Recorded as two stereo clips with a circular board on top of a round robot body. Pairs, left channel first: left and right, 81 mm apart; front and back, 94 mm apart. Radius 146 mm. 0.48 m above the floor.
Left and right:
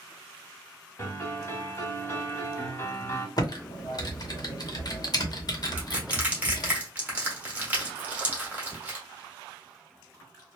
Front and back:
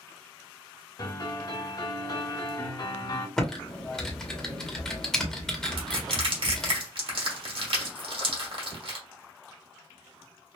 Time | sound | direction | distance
1.0 | a piano | 35° left | 1.7 m
3.4 | typing on a keyboard | 80° left | 1.2 m
5.8 | crushing | 160° right | 1.5 m